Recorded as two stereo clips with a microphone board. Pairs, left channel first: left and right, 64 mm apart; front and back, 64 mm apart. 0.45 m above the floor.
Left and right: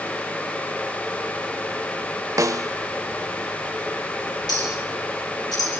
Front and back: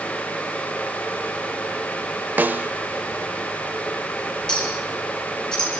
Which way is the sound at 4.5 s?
80° left.